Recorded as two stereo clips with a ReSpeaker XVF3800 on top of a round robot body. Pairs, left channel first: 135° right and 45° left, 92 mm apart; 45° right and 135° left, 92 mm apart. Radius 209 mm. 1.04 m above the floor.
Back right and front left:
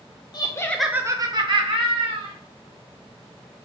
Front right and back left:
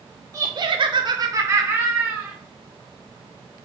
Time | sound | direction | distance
0.3 | laughter | 170° right | 0.7 m